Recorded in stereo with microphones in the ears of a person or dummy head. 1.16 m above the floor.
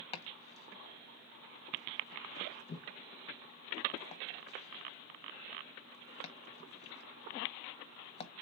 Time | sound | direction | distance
0.1 | chopping | 30° left (ahead or behind) | 0.6 m